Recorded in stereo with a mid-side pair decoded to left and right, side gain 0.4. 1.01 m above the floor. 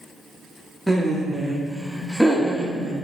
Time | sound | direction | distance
0.9 | laughter | straight ahead | 1.5 m